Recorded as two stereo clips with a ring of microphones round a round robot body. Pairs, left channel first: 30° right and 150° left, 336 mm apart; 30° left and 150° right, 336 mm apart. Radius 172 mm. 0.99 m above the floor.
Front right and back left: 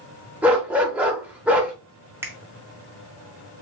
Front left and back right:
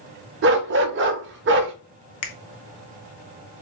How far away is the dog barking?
About 0.7 m.